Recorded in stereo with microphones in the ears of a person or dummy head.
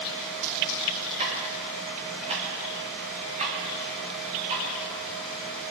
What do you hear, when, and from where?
1.2 s ticking: 40° right (ahead or behind), 3.5 m